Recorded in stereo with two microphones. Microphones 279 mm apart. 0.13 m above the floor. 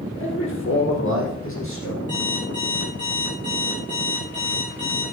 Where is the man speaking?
45° left (ahead or behind), 3.5 m; by 2.0 s 50° left (ahead or behind), 5 m.